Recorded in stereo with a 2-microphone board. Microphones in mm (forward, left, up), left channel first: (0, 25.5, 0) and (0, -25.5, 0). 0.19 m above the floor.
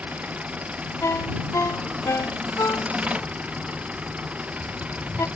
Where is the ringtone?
75° left (ahead or behind).